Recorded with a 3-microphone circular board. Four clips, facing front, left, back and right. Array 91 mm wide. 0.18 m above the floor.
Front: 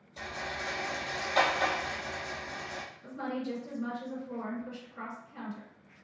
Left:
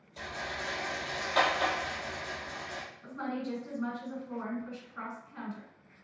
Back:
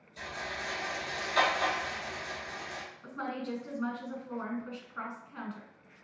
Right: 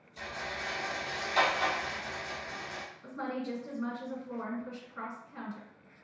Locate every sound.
0.2 s a rattle: 60° left, 1.8 m
3.0 s a woman speaking: 175° left, 1.9 m